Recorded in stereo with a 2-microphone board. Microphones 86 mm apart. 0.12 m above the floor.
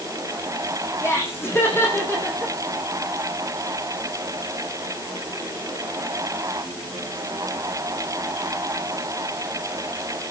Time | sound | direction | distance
1.0 | laughter | 30° left (ahead or behind) | 6 m